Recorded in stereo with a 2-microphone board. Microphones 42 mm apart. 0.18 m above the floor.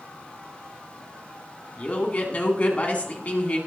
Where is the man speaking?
35° left (ahead or behind), 1.9 m.